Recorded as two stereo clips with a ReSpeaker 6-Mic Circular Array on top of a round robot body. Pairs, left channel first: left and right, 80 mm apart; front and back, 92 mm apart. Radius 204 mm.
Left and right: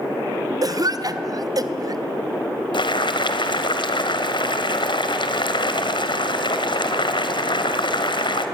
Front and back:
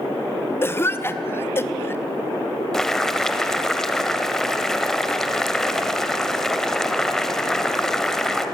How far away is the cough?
About 2 m.